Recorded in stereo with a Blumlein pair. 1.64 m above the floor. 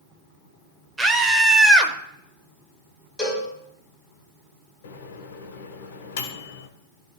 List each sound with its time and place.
1.0 s a scream: 10° right, 1.4 m
3.2 s a cowbell: 15° left, 4.5 m
4.8 s a microwave: 60° left, 1.3 m